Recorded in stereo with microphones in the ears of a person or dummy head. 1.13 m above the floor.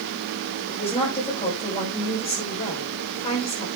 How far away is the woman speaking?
About 5.5 m.